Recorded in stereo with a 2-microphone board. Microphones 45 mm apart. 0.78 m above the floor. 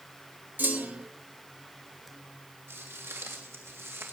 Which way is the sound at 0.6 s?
50° right (ahead or behind).